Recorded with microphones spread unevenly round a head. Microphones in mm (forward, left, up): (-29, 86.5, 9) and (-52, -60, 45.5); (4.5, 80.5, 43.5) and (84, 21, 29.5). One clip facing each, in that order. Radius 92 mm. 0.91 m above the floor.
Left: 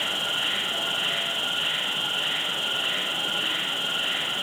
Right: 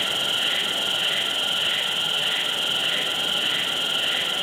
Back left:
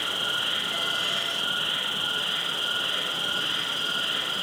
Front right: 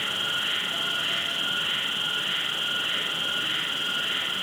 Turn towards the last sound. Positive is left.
turn(degrees=-145)